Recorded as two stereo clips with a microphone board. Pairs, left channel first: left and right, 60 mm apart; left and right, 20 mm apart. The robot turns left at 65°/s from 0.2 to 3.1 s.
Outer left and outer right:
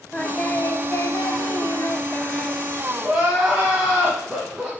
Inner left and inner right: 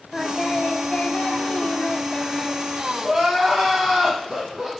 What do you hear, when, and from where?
0.1 s singing: 165° left, 0.9 m; by 2.6 s 10° left, 0.9 m
3.0 s crying: 20° right (ahead or behind), 3 m; by 4.7 s 15° right (ahead or behind), 3 m